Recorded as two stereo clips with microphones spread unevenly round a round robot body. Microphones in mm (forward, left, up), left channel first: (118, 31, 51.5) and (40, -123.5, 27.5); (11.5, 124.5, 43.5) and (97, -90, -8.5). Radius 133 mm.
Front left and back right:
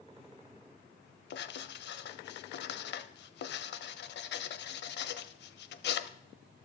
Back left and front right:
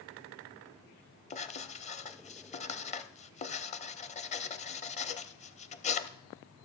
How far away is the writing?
About 0.6 m.